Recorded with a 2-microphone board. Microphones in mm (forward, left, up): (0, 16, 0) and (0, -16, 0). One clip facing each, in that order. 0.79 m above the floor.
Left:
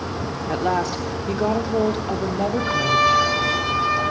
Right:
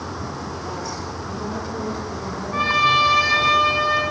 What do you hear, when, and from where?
0.5 s a woman speaking: 75° left (ahead or behind), 1.7 m
2.5 s a trumpet: 45° right (ahead or behind), 6.5 m